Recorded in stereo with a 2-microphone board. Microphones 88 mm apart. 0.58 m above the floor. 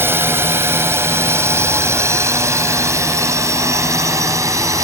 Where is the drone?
25° right (ahead or behind); by 4.9 s 35° right (ahead or behind).